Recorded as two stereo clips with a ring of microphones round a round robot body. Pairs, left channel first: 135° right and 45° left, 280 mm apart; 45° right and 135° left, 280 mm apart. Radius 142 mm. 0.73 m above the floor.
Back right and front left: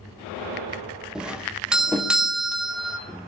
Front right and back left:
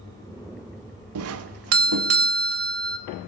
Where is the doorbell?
130° left, 1.5 m.